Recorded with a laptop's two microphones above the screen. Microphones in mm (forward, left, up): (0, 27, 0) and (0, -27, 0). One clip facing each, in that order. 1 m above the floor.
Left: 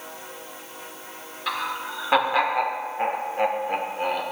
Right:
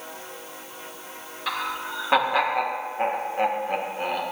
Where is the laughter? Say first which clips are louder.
Left 1 dB; 5° right (ahead or behind), 1.9 m.